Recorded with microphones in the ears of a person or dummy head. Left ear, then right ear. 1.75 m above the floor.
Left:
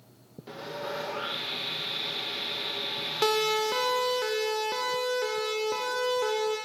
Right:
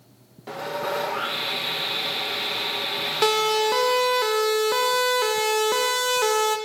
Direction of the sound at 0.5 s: 30° right (ahead or behind).